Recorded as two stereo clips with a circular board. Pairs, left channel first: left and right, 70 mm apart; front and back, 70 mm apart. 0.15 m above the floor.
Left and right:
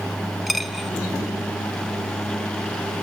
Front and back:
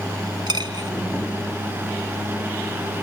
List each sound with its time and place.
0.5 s a dropped coin: straight behind, 0.8 m